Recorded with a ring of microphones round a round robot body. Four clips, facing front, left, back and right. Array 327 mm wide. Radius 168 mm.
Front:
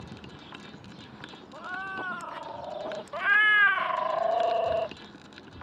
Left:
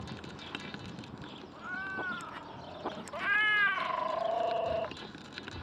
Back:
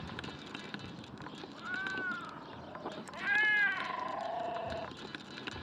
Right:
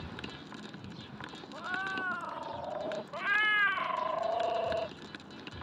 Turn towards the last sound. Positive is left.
turn(degrees=0)